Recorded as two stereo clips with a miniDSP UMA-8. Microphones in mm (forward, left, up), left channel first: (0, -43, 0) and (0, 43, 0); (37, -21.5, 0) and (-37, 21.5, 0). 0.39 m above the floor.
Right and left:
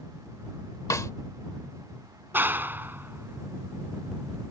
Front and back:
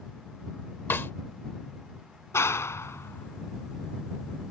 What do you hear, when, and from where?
0.9 s a snare drum: 75° right
2.3 s a clap: 25° left